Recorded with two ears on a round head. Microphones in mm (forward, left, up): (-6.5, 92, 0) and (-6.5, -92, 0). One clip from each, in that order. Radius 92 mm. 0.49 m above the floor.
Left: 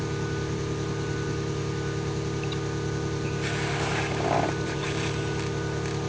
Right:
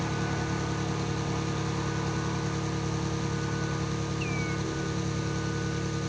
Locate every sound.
0.0 s an engine running: 20° right (ahead or behind), 5 m